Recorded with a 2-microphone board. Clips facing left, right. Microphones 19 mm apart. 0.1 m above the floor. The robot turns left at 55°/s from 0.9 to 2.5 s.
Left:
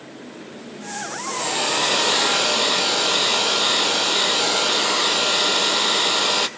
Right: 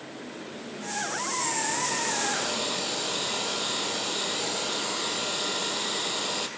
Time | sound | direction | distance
1.3 | a hair dryer | 105° left | 0.9 m